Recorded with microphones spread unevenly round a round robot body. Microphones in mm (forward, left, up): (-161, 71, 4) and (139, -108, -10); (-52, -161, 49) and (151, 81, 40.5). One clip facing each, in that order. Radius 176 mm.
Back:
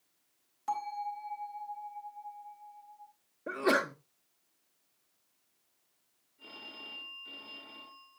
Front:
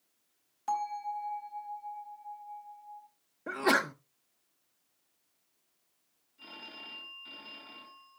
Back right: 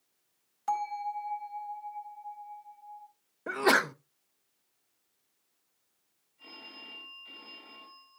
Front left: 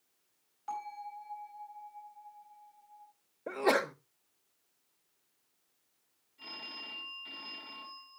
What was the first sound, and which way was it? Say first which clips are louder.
A bell: front 2 dB, back right 9 dB; 115° right.